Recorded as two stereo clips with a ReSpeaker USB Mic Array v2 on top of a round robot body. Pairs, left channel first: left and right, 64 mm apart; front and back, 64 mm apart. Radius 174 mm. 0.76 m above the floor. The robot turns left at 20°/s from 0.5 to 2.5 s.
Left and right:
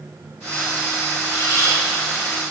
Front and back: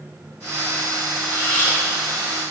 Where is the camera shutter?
60° left, 5 m; by 1.8 s 50° left, 5 m.